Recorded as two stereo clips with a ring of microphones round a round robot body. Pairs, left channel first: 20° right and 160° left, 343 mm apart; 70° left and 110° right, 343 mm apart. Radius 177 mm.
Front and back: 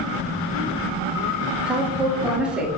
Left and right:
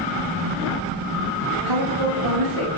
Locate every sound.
1.6 s a woman speaking: 115° right, 7.5 m